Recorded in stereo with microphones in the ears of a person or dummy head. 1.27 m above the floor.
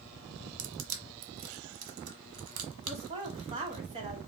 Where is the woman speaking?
35° right (ahead or behind), 1.4 m.